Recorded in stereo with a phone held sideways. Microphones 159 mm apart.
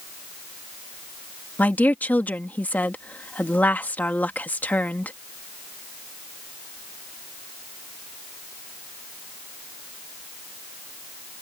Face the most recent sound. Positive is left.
turn(degrees=10)  # may be behind; listen again after turning